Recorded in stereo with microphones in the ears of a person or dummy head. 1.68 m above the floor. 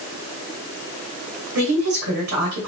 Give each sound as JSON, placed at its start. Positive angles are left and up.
{"t": 1.6, "sound": "a woman speaking", "side_deg": -75, "distance_m": 1.9}